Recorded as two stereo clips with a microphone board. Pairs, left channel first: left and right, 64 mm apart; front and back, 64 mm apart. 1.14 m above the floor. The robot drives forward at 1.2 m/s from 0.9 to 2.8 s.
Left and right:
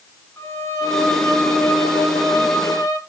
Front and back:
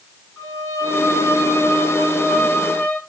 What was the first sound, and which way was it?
A violin, 40° left.